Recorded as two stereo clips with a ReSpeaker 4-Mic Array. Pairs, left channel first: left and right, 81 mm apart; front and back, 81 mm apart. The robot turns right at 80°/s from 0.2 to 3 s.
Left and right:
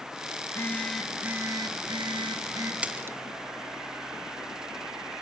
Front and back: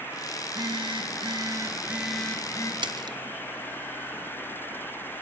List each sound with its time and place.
0.4 s a phone buzzing: 135° left, 2 m; by 2.7 s 40° right, 2 m
2.8 s a splash: 165° right, 0.9 m; by 3.2 s 150° right, 0.9 m